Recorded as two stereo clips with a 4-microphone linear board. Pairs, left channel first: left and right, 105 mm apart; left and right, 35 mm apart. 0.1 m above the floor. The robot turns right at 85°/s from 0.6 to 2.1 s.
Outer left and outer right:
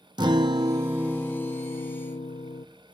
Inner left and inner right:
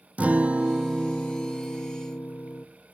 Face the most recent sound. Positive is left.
turn(degrees=80)